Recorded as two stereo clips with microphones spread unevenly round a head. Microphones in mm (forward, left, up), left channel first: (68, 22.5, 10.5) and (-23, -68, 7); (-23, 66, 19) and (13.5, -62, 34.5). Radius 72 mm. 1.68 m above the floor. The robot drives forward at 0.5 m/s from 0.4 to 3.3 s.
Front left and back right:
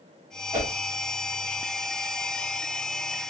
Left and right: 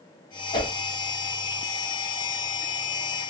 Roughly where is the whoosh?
Behind left.